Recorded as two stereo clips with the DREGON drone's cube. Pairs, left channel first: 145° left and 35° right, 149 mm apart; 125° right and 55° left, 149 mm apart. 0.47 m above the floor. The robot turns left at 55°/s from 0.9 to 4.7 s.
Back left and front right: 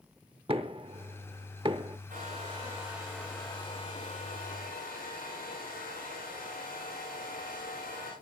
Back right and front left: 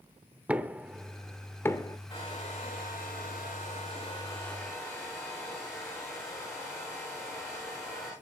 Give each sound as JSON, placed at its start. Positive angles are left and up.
{"t": 0.5, "sound": "knocking", "azimuth_deg": -20, "distance_m": 0.9}
{"t": 2.1, "sound": "a hair dryer", "azimuth_deg": -70, "distance_m": 10.0}